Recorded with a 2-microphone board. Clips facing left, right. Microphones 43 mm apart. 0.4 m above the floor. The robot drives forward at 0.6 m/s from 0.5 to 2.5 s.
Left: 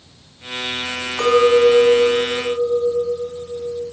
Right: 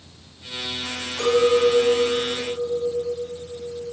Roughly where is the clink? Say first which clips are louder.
Left 5 dB; left.